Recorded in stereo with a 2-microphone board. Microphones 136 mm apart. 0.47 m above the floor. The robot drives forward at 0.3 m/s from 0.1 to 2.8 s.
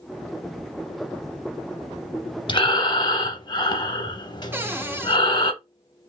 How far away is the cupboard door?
About 0.6 m.